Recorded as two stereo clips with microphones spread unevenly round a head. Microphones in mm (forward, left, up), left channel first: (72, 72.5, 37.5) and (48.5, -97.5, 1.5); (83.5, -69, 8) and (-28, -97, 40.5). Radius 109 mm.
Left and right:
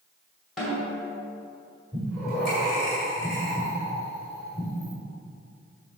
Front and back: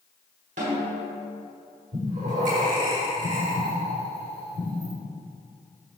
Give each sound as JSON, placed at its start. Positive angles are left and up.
{"t": 0.6, "sound": "a snare drum", "azimuth_deg": 170, "distance_m": 1.8}
{"t": 1.9, "sound": "breathing", "azimuth_deg": 170, "distance_m": 1.7}